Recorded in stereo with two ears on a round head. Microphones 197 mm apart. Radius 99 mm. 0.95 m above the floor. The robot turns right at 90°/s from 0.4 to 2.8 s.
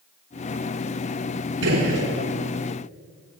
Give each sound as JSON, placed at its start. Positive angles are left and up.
{"t": 1.6, "sound": "a gunshot", "azimuth_deg": -60, "distance_m": 3.0}